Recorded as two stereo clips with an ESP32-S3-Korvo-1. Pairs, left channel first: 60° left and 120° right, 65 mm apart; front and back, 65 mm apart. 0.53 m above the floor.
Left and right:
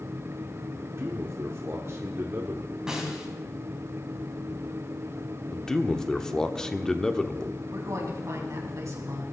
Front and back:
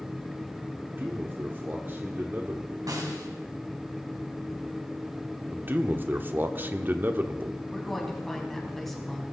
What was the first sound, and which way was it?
A man speaking, 135° right.